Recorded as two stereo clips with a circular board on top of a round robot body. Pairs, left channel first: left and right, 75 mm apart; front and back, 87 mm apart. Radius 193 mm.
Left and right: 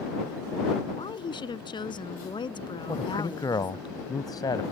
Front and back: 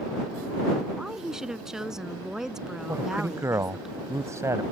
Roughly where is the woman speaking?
Left.